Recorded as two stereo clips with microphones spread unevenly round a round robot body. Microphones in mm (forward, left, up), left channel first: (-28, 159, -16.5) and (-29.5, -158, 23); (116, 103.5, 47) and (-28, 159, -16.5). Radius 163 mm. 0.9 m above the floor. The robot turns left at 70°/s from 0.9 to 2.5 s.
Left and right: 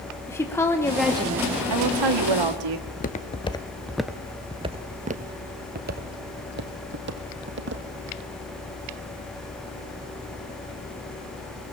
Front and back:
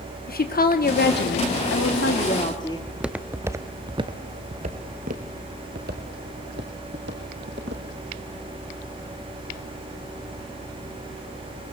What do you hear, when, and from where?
0.3 s a woman speaking: 10° left, 2.5 m; by 2.8 s 100° right, 2.5 m
2.9 s footsteps: 35° left, 1.0 m; by 7.8 s 140° right, 2.5 m